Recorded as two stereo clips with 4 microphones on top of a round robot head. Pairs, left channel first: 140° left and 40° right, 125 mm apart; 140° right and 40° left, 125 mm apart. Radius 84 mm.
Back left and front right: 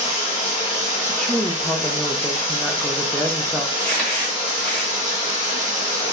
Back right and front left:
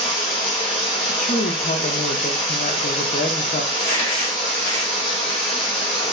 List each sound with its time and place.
0.0 s running water: straight behind, 0.8 m
1.1 s a woman speaking: 135° right, 0.6 m
3.7 s crumpling: 135° right, 1.4 m